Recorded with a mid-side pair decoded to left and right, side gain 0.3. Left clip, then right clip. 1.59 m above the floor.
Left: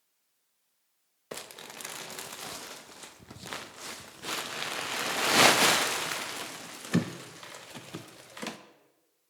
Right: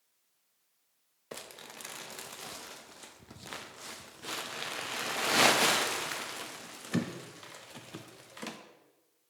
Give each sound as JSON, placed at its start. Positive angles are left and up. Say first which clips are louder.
{"t": 1.3, "sound": "crumpling", "louder": "left 3 dB", "azimuth_deg": 45, "distance_m": 0.6}